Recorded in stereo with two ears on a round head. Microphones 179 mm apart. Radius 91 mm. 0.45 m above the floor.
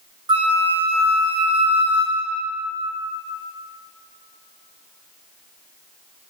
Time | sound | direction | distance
0.3 | a flute | 25° right (ahead or behind) | 0.9 m